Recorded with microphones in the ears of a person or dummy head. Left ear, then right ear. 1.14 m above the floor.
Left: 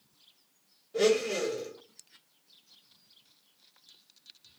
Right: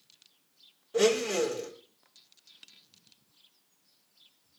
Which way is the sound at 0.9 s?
40° right (ahead or behind).